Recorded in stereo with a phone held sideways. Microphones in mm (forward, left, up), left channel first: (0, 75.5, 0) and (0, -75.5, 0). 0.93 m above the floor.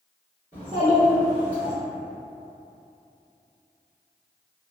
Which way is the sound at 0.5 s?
30° right (ahead or behind).